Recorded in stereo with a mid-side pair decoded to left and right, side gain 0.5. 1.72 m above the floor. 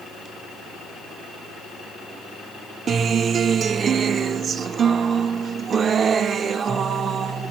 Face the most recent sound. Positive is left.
turn(degrees=-45)